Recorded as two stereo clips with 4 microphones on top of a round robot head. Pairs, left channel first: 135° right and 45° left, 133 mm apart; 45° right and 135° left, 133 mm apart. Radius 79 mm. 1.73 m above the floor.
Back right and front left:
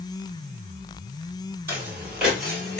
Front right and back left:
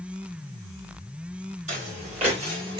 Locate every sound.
1.7 s footsteps: 110° left, 2.5 m; by 2.8 s 155° left, 1.8 m